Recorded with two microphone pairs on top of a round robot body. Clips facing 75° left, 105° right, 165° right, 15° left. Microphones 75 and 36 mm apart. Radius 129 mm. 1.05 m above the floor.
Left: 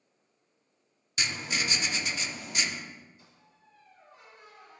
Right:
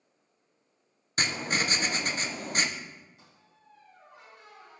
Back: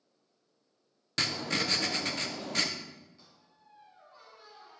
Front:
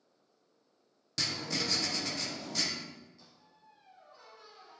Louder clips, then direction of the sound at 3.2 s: Right 1 dB, even; 100° right.